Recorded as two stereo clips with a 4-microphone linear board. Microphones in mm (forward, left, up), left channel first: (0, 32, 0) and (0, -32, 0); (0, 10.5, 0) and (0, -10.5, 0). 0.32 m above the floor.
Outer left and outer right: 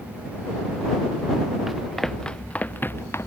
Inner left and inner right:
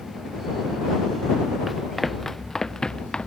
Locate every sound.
1.7 s running footsteps: 5° right (ahead or behind); by 3.3 s 45° left (ahead or behind)